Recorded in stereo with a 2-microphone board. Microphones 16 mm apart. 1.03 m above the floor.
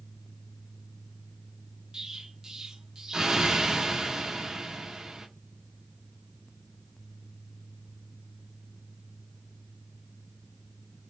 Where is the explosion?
50° right (ahead or behind), 0.8 m.